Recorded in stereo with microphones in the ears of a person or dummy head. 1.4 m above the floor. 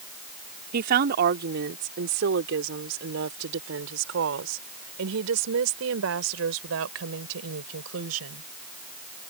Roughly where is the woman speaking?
Right.